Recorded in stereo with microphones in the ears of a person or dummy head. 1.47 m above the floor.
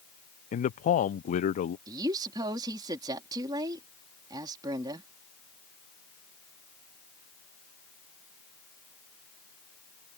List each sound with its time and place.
0.5 s a man speaking: 45° left (ahead or behind)
1.9 s a woman speaking: 25° right (ahead or behind)